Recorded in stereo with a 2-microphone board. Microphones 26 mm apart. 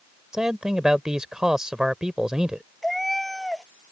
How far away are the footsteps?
No footsteps in this recording.